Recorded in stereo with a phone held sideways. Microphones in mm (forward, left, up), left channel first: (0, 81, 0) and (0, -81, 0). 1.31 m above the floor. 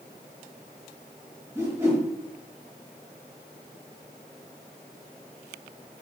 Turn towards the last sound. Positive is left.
turn(degrees=-15)  # may be behind; listen again after turning